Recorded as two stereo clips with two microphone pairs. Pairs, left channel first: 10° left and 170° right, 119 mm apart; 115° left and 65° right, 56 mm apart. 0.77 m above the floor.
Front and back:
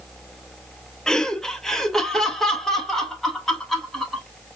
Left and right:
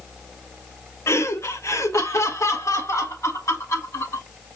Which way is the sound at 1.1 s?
90° left.